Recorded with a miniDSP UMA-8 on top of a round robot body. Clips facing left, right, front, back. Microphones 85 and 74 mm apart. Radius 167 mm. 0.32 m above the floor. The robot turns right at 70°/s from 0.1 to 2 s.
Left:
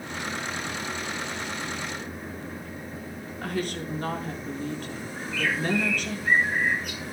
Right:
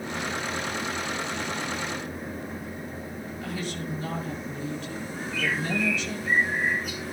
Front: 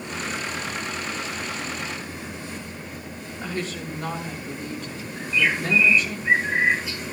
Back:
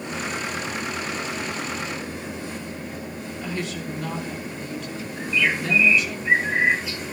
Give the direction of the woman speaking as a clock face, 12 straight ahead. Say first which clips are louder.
Left 4 dB, even; 10 o'clock.